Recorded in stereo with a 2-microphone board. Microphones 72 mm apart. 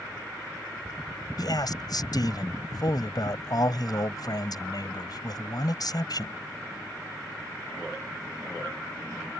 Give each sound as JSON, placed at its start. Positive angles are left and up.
{"t": 1.4, "sound": "a man speaking", "side_deg": 60}